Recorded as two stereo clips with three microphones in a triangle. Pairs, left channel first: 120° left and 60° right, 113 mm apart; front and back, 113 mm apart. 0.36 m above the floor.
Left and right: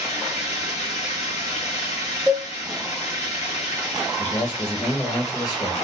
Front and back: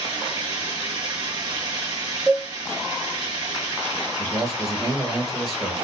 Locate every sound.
0.0 s running water: 130° left, 2.0 m
2.3 s a cowbell: 105° right, 0.8 m
4.2 s a man speaking: 90° left, 1.1 m